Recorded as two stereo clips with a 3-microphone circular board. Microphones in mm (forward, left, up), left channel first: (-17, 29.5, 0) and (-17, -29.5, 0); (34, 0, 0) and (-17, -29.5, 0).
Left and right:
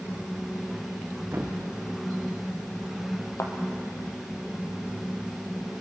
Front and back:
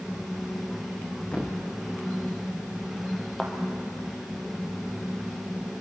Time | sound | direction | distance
1.3 | a thud | 40° right | 4 m
3.4 | a thud | 110° left | 2.5 m